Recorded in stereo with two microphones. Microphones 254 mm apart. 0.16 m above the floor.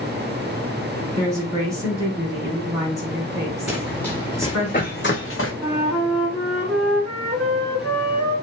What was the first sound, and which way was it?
A woman speaking, 10° right (ahead or behind).